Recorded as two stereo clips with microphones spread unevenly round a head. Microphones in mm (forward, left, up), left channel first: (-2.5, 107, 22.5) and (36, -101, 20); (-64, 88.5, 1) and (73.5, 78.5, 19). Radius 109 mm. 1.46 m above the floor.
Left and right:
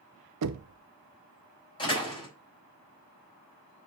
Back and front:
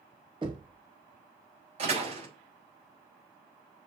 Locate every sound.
0.4 s knocking: 75° right, 0.7 m
1.8 s a door slam: 30° left, 4.5 m